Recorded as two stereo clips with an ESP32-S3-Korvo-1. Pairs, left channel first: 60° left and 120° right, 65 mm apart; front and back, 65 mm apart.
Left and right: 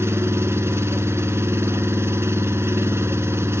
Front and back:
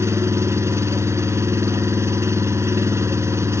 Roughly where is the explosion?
I don't hear an explosion.